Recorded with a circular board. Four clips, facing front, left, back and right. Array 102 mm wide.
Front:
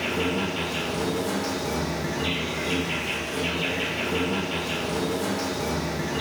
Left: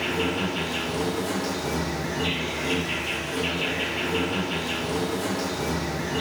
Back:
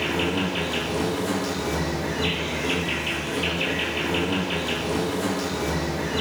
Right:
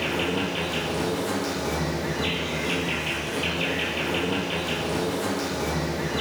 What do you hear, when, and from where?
0.0 s an insect: 150° right, 0.9 m